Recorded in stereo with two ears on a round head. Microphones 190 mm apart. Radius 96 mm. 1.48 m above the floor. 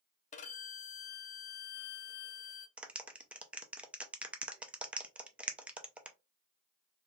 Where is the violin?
30° left (ahead or behind), 0.5 m.